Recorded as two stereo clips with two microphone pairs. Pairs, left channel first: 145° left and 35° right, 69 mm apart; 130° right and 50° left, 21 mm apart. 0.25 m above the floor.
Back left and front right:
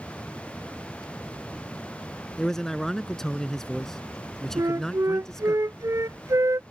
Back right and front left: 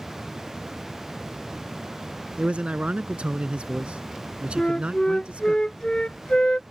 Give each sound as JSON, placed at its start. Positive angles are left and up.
{"t": 2.4, "sound": "a man speaking", "azimuth_deg": 60}
{"t": 4.6, "sound": "a flute", "azimuth_deg": -75}